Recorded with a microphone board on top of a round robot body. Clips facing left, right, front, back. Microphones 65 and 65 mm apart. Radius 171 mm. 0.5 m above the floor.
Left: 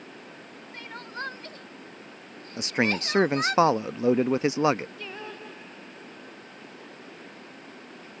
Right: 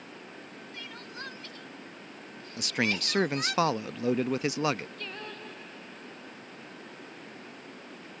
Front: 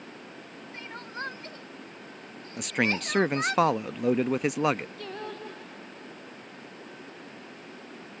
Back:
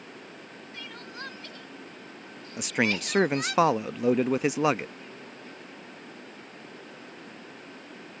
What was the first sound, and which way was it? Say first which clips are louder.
Crying: left 7 dB, front 4 dB; 50° left.